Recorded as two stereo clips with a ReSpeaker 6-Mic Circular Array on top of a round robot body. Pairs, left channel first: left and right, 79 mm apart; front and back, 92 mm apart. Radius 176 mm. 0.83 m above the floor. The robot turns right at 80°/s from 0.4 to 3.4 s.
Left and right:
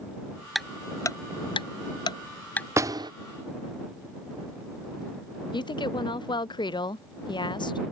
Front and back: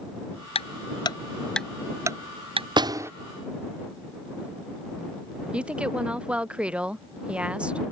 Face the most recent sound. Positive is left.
turn(degrees=100)